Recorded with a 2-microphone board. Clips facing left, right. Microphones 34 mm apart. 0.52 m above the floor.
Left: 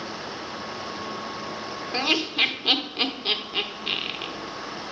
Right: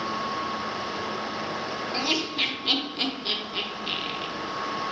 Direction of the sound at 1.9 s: 25° left (ahead or behind).